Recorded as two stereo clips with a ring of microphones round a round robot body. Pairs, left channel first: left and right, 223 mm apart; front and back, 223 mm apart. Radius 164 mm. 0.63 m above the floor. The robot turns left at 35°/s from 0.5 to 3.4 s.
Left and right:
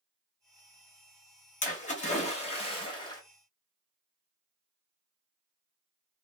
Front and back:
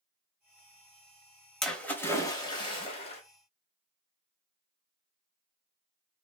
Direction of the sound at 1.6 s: 85° left.